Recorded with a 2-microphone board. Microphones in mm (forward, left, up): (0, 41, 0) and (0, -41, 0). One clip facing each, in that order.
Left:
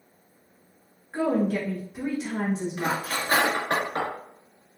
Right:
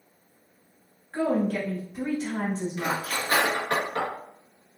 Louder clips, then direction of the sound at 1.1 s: Left 1 dB; 5° left (ahead or behind).